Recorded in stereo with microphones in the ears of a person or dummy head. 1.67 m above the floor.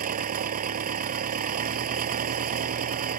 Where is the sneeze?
I don't hear a sneeze.